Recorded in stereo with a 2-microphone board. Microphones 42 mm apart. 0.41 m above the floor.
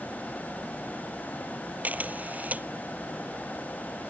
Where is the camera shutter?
40° right (ahead or behind).